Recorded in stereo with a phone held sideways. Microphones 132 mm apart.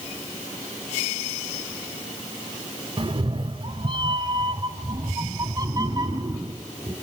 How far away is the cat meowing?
About 0.8 m.